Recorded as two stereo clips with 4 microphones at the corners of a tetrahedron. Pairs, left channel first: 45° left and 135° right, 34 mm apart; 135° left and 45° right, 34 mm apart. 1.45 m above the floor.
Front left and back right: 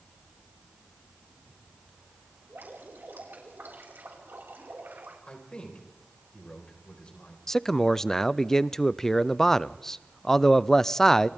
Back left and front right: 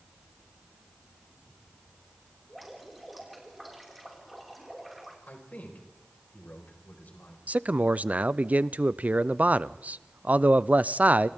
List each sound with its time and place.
2.5 s dripping: 135° right, 5 m
5.3 s a man speaking: 105° left, 5 m
7.5 s a man speaking: 30° right, 0.5 m